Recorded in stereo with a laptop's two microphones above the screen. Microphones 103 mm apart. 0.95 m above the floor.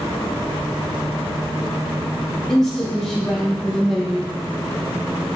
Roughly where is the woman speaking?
Centre.